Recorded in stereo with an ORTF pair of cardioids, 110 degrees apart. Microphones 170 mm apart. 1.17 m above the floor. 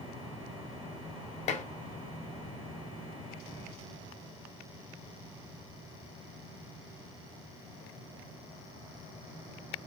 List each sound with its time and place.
1.5 s dishes clattering: 40° left, 0.6 m